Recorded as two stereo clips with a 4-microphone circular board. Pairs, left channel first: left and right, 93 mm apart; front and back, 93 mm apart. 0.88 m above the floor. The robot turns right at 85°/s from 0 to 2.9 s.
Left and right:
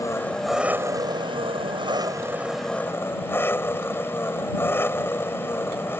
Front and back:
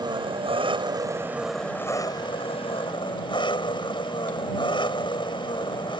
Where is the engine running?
140° left; by 6.0 s 25° left.